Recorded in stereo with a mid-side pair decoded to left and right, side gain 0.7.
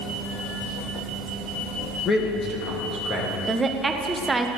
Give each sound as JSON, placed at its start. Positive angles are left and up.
{"t": 2.0, "sound": "a man speaking", "azimuth_deg": 40, "distance_m": 1.7}
{"t": 3.5, "sound": "a woman speaking", "azimuth_deg": -15, "distance_m": 0.9}